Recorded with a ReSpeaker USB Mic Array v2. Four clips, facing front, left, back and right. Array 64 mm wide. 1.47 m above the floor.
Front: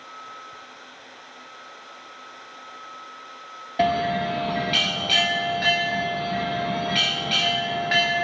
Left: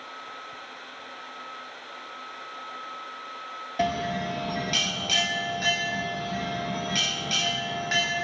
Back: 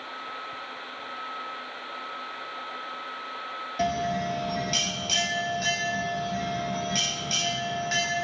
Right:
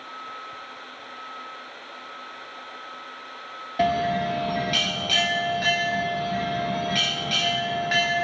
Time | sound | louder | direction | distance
3.8 | a bell | right 5 dB, front 6 dB | 15° right | 0.8 m